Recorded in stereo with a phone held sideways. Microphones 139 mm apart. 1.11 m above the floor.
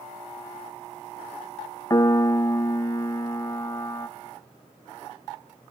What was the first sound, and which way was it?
A piano, 25° left (ahead or behind).